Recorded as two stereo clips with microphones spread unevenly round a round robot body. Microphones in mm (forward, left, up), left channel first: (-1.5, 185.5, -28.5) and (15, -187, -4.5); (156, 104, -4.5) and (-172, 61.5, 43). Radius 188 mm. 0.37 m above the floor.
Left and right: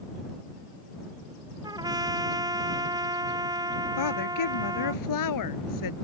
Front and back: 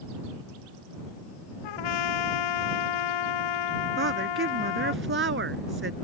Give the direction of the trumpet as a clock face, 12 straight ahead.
12 o'clock.